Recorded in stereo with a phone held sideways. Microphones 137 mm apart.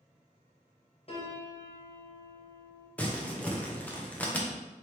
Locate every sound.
1.1 s a piano: 40° left (ahead or behind), 0.9 m
3.0 s crumpling: 10° left (ahead or behind), 0.6 m